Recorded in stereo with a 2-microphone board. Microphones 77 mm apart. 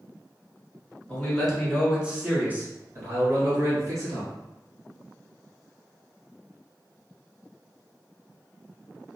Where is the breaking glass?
I don't hear breaking glass.